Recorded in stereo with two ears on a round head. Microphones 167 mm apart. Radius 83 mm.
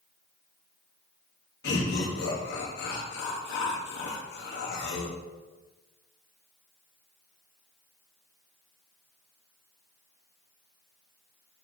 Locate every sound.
1.6 s laughter: 65° left (ahead or behind), 3 m